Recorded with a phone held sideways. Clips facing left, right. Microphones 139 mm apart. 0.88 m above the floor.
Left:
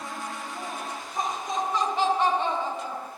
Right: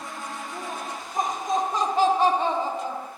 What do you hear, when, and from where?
0.5 s laughter: 40° right (ahead or behind), 1.7 m; by 3.1 s 25° right (ahead or behind), 1.5 m